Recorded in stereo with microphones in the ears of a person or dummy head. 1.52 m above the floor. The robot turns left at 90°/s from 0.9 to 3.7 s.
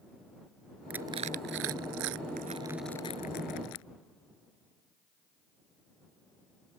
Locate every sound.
0.9 s crushing: 5° right (ahead or behind); by 3.9 s 75° left (ahead or behind)